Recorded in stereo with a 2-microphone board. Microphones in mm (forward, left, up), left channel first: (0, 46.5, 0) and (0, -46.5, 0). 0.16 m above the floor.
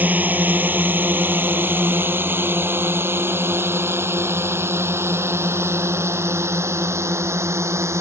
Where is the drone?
20° right (ahead or behind); by 8.0 s 30° right (ahead or behind).